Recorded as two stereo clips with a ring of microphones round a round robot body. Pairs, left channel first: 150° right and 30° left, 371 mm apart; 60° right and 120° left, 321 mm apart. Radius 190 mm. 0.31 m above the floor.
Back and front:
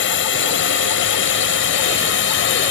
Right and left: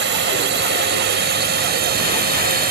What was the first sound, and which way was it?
A drone, 165° left.